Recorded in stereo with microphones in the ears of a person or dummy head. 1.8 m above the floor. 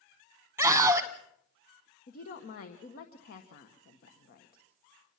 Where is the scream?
5° right (ahead or behind), 0.8 m.